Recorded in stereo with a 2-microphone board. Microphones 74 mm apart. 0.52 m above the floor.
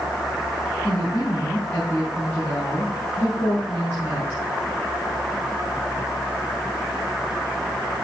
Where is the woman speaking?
25° left (ahead or behind), 4.5 m.